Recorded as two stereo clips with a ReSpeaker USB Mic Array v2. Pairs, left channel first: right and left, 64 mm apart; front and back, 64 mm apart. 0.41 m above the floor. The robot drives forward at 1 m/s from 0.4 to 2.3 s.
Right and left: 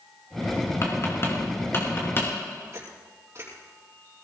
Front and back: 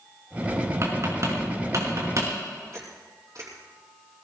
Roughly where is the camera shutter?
Behind left.